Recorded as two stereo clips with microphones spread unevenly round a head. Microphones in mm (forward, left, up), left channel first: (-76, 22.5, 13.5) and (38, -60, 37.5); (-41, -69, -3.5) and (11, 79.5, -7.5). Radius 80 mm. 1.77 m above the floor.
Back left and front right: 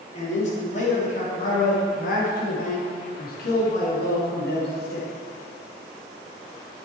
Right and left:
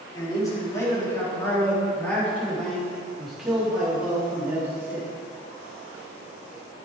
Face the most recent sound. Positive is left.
turn(degrees=145)